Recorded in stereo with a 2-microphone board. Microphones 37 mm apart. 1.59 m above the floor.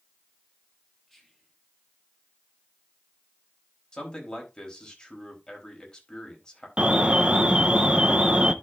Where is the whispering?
5° left (ahead or behind), 3.5 m.